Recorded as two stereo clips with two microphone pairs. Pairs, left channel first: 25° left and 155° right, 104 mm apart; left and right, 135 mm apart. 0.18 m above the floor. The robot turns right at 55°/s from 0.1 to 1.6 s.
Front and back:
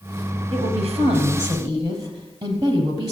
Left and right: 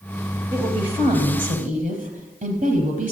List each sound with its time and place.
0.5 s a woman speaking: 160° right, 4 m; by 3.1 s 100° right, 4 m